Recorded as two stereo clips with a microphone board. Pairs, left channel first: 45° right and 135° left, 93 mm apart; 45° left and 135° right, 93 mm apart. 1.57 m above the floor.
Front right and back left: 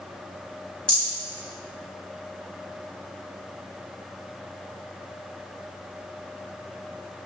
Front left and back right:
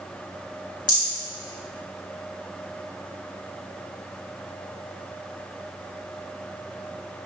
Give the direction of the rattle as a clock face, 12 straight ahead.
11 o'clock.